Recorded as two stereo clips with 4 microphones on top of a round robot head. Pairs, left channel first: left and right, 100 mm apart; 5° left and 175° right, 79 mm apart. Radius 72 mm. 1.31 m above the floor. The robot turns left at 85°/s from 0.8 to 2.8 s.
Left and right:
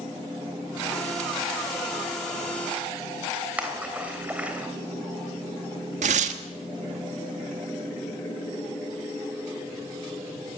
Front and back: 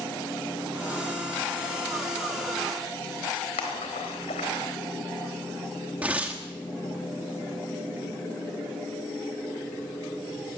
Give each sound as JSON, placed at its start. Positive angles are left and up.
{"t": 3.6, "sound": "a splash", "azimuth_deg": -10, "distance_m": 3.5}
{"t": 6.0, "sound": "tearing paper", "azimuth_deg": -95, "distance_m": 1.3}